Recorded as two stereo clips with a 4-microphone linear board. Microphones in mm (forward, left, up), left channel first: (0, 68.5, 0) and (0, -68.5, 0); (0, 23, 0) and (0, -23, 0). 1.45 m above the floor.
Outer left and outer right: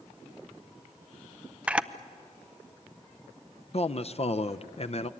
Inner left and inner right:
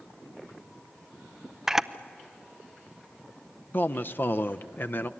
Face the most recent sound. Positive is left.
turn(degrees=50)  # may be behind; listen again after turning